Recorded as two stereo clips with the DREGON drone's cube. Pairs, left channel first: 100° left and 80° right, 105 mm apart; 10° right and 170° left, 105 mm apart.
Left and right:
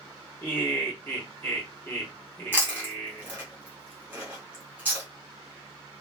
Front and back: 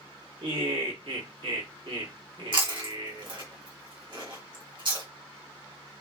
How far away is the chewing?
About 1.2 m.